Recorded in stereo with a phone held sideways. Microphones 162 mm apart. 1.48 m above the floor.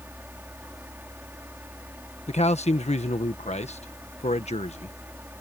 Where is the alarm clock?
I don't hear an alarm clock.